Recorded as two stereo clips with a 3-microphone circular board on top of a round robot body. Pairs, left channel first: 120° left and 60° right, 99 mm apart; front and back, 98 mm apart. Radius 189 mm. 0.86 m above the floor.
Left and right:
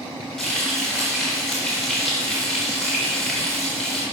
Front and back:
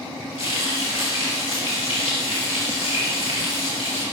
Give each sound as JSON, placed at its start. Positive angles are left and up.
{"t": 0.4, "sound": "frying", "azimuth_deg": 35, "distance_m": 0.6}